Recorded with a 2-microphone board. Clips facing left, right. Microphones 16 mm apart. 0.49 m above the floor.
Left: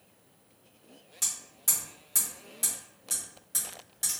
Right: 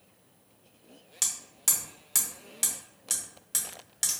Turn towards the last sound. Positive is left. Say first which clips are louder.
# right 2 dB
turn(degrees=-50)  # may be behind; listen again after turning